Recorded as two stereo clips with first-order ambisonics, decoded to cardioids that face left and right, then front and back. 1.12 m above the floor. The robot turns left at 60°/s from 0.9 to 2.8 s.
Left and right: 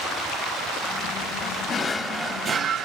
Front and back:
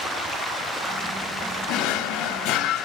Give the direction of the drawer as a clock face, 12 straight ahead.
11 o'clock.